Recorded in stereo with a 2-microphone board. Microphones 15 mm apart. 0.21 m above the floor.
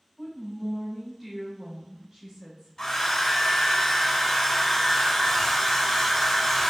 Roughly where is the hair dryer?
Left.